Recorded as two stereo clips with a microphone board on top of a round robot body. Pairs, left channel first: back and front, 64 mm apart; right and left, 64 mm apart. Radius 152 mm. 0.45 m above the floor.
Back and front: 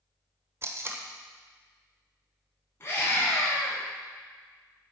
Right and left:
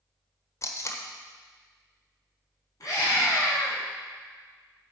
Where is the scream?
125° right, 6 m.